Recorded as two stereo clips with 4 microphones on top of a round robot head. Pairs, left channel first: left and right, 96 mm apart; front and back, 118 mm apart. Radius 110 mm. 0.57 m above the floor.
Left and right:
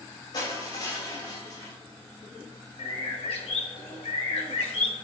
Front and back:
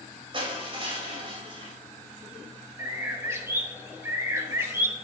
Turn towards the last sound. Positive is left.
turn(degrees=110)